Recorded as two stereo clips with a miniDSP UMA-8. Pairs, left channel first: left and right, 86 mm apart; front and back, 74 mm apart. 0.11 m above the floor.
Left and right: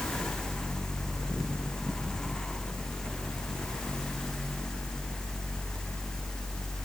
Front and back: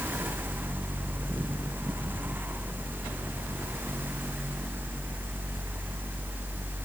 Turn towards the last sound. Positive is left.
No sound to turn to.